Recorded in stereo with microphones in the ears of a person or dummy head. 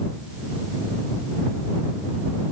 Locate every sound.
Only background noise.